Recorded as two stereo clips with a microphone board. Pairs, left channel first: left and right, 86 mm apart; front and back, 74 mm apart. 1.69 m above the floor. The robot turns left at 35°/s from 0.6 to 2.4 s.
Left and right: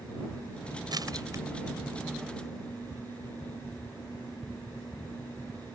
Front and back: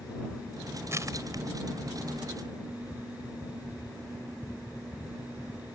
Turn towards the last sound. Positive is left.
turn(degrees=180)